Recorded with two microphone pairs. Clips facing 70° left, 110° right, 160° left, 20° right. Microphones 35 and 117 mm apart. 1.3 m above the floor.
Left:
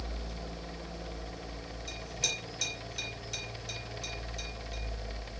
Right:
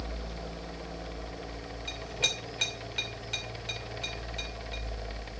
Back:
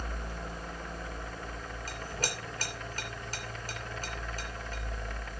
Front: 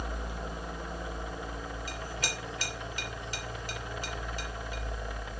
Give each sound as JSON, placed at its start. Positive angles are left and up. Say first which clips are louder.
{"t": 1.9, "sound": "a clink", "louder": "right 5 dB, back 4 dB", "azimuth_deg": -150, "distance_m": 2.5}